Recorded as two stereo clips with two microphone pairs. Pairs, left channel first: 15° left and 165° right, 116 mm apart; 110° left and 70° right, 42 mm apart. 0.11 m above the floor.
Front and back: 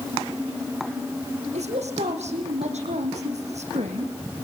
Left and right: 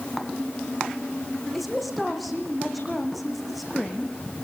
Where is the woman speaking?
160° right, 6 m.